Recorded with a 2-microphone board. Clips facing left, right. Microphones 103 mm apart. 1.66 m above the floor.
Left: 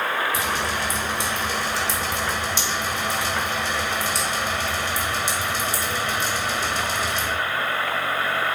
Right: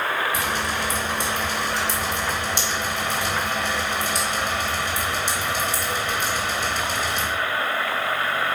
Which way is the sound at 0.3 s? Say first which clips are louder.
Even; 50° right (ahead or behind).